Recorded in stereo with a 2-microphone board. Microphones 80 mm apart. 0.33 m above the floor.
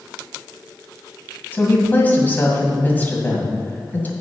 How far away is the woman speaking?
About 2.0 m.